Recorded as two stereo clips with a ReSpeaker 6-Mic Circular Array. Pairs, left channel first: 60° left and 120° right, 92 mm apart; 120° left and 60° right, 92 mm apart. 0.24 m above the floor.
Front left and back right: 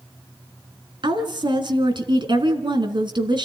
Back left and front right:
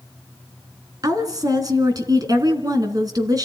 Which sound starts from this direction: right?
A woman speaking, at 1.0 s.